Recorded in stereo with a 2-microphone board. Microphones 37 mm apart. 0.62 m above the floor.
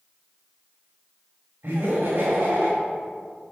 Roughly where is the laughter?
Right.